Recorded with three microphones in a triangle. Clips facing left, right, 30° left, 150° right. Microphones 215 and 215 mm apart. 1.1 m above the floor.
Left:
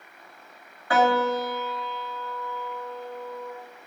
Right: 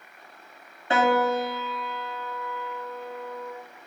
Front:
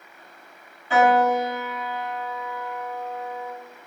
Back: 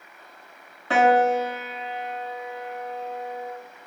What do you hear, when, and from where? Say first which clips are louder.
0.9 s a piano: even, even; 155° right, 3 m